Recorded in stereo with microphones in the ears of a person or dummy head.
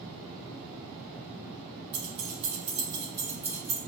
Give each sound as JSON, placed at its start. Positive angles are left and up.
{"t": 1.9, "sound": "keys jangling", "side_deg": -60, "distance_m": 1.2}